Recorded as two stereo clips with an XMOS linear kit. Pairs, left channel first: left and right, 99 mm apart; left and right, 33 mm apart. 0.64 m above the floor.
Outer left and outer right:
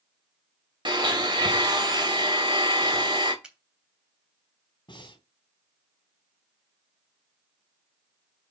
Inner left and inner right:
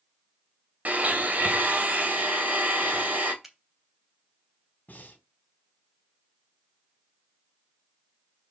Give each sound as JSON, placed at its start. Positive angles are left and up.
{"t": 0.8, "sound": "a blender", "side_deg": -50, "distance_m": 2.0}
{"t": 3.4, "sound": "a finger snap", "side_deg": -10, "distance_m": 3.0}
{"t": 4.9, "sound": "breathing", "side_deg": 55, "distance_m": 2.5}